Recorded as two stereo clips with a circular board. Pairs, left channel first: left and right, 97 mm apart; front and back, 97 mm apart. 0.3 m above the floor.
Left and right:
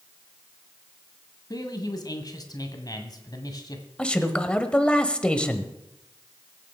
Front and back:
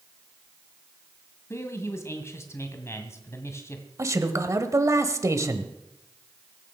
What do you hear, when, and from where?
1.5 s a man speaking: 55° left, 1.7 m
4.0 s a man speaking: 160° left, 1.2 m